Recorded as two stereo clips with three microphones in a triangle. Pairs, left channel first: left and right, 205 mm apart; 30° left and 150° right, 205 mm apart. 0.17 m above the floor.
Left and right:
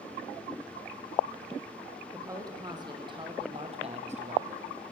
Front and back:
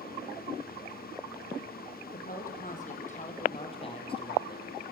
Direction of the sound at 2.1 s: 15° right.